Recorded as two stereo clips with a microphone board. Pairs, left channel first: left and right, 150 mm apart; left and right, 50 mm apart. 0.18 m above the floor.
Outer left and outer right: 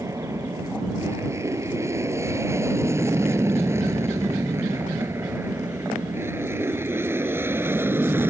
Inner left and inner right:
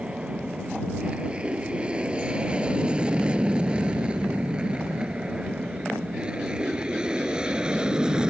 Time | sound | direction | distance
0.0 | an aircraft | 20° right (ahead or behind) | ?